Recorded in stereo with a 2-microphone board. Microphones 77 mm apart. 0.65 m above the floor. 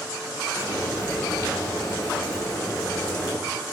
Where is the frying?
40° left (ahead or behind), 0.7 m.